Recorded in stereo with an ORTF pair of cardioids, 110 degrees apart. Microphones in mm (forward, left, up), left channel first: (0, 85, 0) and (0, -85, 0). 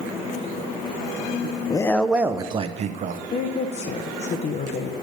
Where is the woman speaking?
40° left, 0.6 m.